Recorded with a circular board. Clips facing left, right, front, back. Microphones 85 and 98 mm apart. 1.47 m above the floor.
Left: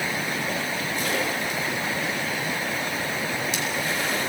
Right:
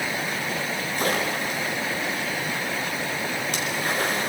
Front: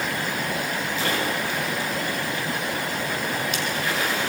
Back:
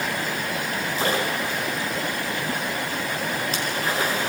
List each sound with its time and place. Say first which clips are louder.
1.0 s a splash: right 3 dB, back 2 dB; 130° right, 6 m